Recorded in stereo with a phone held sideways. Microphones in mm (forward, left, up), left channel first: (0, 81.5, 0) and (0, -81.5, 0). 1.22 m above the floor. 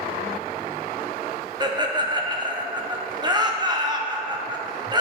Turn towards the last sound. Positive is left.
turn(degrees=-25)  # may be behind; listen again after turning